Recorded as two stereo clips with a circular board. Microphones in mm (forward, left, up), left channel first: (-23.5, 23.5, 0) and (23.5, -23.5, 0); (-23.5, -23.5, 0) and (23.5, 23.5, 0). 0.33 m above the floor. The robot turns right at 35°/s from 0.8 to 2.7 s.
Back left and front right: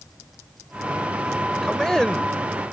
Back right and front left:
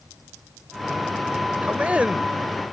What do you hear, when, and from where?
1.6 s a man speaking: 55° left; by 2.3 s 80° left